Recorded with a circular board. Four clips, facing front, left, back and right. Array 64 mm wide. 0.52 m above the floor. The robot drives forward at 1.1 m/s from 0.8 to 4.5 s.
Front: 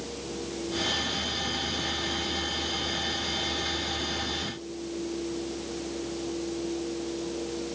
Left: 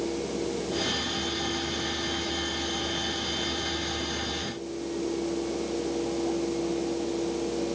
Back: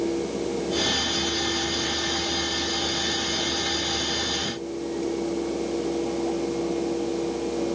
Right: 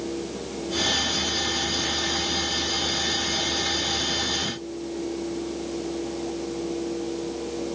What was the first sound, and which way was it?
Only background noise.